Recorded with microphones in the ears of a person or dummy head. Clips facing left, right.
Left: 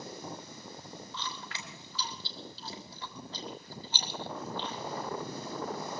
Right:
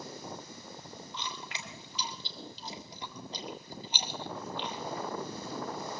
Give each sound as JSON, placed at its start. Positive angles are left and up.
{"t": 1.1, "sound": "chewing", "side_deg": -15, "distance_m": 1.8}